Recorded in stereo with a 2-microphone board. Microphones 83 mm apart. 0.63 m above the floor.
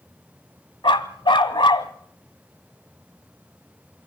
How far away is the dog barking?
About 1.2 m.